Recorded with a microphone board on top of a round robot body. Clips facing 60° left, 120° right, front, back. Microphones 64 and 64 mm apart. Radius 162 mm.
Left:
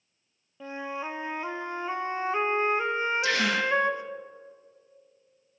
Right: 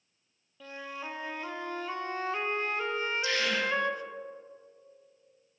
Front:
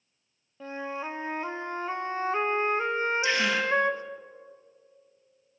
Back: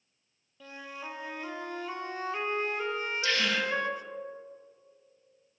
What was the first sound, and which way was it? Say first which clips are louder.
A flute: left 6 dB, front 8 dB; 15° left.